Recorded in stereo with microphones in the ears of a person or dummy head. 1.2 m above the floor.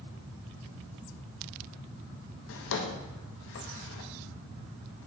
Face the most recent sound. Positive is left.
turn(degrees=65)  # may be behind; listen again after turning